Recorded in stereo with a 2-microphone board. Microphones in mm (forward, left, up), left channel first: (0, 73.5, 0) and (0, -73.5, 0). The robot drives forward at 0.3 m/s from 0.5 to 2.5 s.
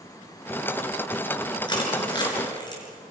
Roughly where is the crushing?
Left.